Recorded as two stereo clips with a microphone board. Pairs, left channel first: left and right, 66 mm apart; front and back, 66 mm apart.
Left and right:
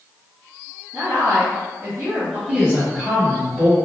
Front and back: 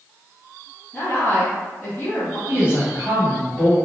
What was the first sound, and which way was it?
A woman speaking, 65° right.